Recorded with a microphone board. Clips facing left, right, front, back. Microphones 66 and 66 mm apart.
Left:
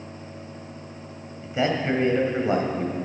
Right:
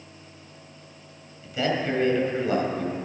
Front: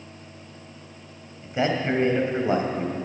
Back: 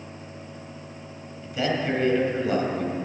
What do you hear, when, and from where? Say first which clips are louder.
1.4 s a man speaking: left 2 dB, front 2 dB; 45° left, 1.6 m